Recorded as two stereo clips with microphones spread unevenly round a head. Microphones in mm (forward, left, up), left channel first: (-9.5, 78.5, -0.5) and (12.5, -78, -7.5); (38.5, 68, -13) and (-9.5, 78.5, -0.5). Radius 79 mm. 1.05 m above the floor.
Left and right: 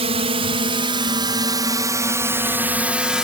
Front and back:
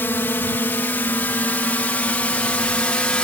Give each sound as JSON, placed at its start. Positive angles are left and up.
{"t": 0.0, "sound": "a drone", "azimuth_deg": -45}